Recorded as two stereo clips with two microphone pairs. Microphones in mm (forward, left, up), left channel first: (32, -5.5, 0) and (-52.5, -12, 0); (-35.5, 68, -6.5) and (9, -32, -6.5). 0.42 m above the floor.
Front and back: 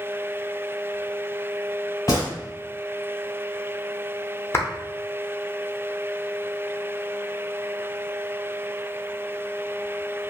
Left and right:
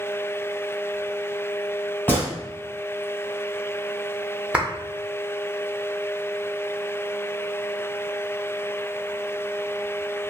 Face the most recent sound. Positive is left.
turn(degrees=10)